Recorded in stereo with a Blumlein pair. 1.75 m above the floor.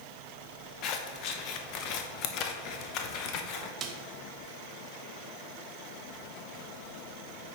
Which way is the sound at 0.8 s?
40° left.